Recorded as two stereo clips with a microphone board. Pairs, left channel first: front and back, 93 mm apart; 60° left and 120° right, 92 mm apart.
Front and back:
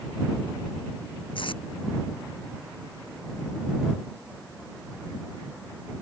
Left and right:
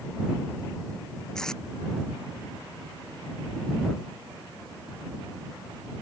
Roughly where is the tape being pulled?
Ahead right.